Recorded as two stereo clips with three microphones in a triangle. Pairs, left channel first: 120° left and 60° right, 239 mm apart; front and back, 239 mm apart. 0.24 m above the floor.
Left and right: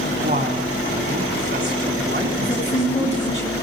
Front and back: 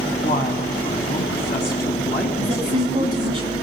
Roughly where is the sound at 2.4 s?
Behind left.